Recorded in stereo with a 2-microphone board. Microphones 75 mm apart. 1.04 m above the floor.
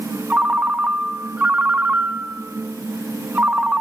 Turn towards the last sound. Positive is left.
turn(degrees=-20)  # may be behind; listen again after turning